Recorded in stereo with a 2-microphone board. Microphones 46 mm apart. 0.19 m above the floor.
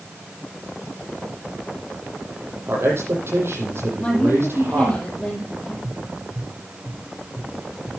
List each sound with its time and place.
2.7 s a man speaking: 60° right (ahead or behind), 8 m
4.0 s a woman speaking: 20° left (ahead or behind), 6.5 m
5.8 s tapping: 65° right (ahead or behind), 7 m